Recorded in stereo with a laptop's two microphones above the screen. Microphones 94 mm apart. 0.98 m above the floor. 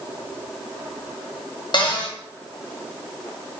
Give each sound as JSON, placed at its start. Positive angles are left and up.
{"t": 1.7, "sound": "a cupboard door", "side_deg": 50, "distance_m": 1.3}